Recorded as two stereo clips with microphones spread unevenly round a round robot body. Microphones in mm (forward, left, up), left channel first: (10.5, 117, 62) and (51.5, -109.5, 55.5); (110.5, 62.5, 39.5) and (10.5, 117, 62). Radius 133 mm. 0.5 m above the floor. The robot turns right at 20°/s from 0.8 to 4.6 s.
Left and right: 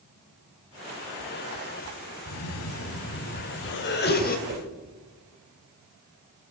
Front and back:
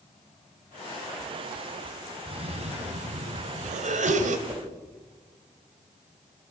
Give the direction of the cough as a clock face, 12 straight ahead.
8 o'clock.